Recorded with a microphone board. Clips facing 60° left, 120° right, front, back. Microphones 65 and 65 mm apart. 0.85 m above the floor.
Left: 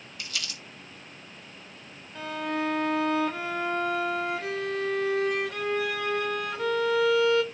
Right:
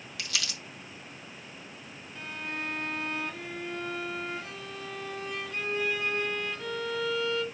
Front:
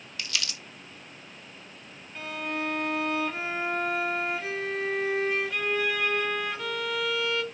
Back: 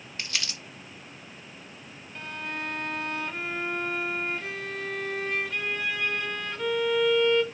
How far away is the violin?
About 0.9 m.